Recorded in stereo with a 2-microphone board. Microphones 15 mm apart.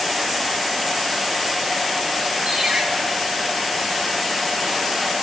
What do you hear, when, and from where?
2.5 s a ringtone: 70° right (ahead or behind), 8.5 m